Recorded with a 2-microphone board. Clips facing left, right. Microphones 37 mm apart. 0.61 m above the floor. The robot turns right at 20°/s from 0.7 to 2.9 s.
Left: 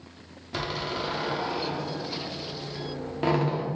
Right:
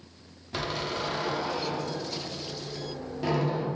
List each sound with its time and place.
0.5 s a door slam: 10° left (ahead or behind), 0.7 m; by 3.6 s 45° left (ahead or behind), 0.7 m